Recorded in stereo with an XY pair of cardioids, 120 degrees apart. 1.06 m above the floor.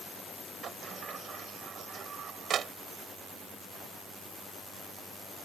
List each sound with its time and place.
0.6 s a sliding door: 45° right